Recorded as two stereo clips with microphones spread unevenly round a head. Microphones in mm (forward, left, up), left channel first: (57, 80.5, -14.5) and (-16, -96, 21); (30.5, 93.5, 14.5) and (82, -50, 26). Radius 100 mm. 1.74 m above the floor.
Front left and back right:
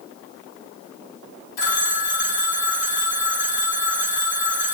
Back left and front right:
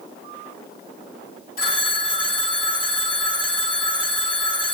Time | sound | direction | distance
1.6 | a phone ringing | 95° left | 1.6 m